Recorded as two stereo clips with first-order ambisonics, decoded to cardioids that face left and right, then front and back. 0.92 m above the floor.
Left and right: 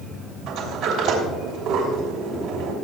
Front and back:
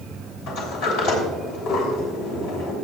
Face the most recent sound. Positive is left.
turn(degrees=-35)